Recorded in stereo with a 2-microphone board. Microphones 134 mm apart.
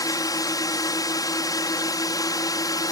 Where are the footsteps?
I don't hear footsteps.